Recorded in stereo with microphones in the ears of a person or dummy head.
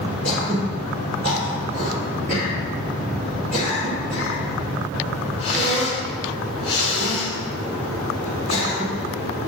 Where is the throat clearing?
45° right (ahead or behind), 3 m.